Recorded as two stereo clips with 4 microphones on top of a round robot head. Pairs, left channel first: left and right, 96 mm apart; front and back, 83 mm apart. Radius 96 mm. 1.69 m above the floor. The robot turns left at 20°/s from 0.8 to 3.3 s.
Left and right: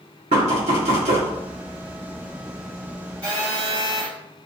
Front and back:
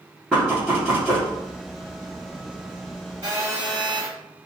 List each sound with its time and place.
0.3 s knocking: 95° right, 1.0 m; by 1.3 s 105° right, 1.0 m
3.2 s a phone buzzing: 115° right, 1.1 m; by 4.1 s 120° right, 1.1 m